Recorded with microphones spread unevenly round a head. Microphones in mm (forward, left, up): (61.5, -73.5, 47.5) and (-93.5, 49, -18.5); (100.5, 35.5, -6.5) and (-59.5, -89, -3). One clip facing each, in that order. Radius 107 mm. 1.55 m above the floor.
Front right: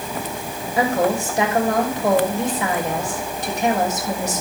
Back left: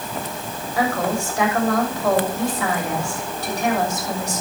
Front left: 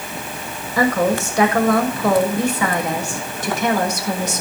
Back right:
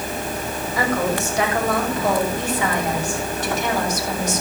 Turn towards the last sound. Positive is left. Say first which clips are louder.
# front right 3 dB, front left 5 dB
turn(degrees=30)